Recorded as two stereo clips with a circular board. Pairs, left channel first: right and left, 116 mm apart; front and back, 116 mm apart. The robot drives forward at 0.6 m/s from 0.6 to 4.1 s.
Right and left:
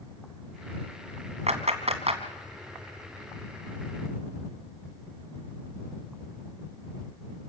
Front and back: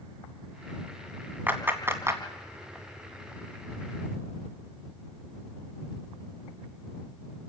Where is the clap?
105° left, 2.5 m; by 2.2 s 115° left, 2.5 m.